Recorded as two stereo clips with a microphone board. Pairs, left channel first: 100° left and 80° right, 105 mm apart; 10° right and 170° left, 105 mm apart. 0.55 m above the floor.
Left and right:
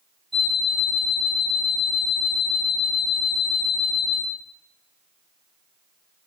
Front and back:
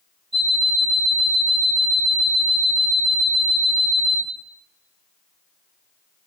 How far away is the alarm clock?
About 1.6 m.